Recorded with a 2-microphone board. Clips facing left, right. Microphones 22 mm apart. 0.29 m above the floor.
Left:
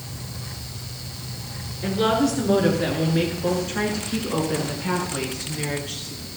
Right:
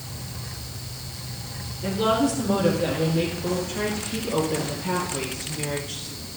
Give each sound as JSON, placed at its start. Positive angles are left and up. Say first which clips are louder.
{"t": 1.8, "sound": "a woman speaking", "louder": "left 1 dB", "side_deg": 60, "distance_m": 4.5}